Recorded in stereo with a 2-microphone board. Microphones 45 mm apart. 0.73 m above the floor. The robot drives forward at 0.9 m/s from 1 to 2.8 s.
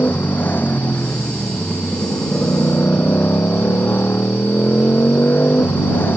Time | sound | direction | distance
0.0 | a motorcycle | 45° left (ahead or behind) | ?